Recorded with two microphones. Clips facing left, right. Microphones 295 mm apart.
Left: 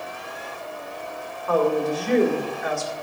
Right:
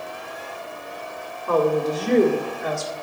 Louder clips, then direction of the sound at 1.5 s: Right 1 dB; 45° right (ahead or behind).